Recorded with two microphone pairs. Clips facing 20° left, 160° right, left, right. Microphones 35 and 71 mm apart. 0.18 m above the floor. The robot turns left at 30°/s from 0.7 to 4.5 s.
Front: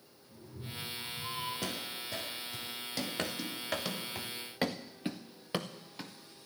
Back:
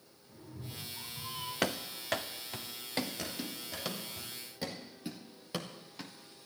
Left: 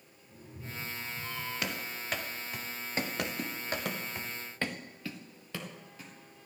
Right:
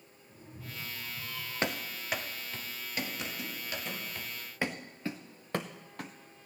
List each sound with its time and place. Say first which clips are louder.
0.3 s a cat meowing: front 1 dB, left 2 dB; 165° right, 9 m; by 1.5 s 170° left, 9 m
1.6 s running footsteps: back 4 dB, right 3 dB; 145° right, 1.4 m; by 4.0 s 110° left, 3 m
3.2 s running footsteps: front 4 dB, left 4 dB; 65° left, 2 m; by 6.1 s 65° right, 1.8 m